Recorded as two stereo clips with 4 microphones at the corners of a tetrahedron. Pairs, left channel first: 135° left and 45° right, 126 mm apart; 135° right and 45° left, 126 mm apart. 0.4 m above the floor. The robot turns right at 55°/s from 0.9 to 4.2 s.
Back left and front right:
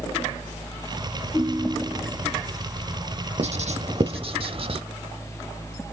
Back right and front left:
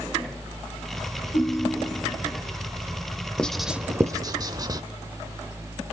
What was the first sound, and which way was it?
A ringtone, 130° right.